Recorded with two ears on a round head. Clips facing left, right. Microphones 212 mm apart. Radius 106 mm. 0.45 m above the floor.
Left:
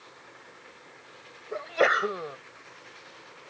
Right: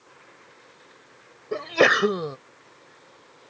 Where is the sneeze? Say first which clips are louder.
Right 5 dB; 55° right (ahead or behind).